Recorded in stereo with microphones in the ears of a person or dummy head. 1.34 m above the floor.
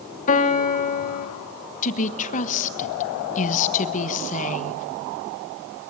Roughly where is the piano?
Left.